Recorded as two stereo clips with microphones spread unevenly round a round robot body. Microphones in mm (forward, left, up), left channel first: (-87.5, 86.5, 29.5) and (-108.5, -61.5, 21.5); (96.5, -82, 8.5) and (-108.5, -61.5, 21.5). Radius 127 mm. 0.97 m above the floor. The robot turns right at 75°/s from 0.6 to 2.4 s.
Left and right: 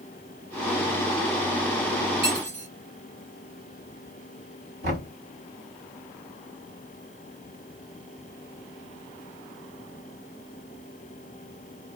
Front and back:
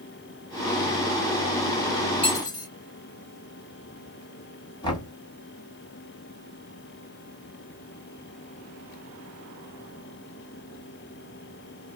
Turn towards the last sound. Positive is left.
turn(degrees=-75)